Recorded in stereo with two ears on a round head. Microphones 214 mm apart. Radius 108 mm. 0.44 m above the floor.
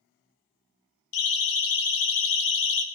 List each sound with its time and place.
1.1 s a siren: 65° left (ahead or behind), 3.5 m; by 2.8 s 50° left (ahead or behind), 2.5 m